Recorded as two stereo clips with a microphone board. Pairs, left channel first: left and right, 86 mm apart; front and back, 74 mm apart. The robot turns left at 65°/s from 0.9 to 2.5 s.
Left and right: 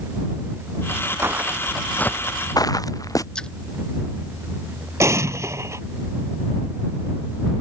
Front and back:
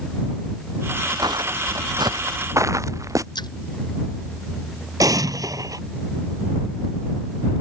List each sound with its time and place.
1.2 s footsteps: 150° right; by 3.2 s 140° left
3.4 s a splash: 10° left
5.0 s an explosion: 145° right